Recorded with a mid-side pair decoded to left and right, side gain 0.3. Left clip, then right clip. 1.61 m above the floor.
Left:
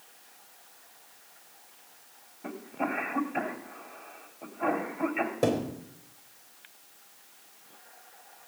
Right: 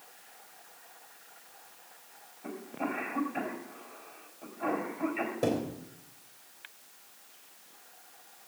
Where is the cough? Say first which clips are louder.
Left 3 dB; 55° left, 3.5 m.